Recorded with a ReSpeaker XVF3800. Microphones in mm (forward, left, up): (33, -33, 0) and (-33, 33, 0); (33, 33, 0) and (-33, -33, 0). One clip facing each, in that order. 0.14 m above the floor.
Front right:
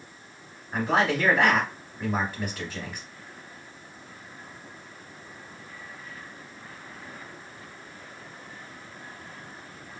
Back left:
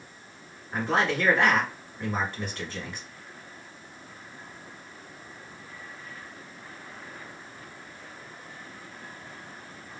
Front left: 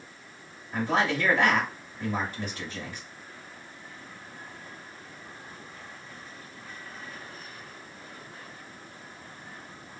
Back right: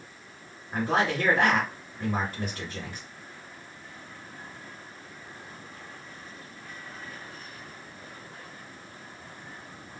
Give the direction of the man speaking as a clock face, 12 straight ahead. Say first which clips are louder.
Front right 2 dB, even; 4 o'clock.